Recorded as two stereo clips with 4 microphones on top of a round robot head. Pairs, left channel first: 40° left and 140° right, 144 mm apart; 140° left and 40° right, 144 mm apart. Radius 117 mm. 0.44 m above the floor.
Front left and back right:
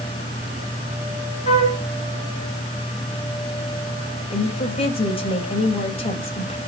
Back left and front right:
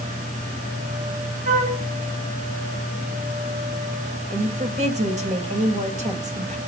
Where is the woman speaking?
5° right, 3.5 m.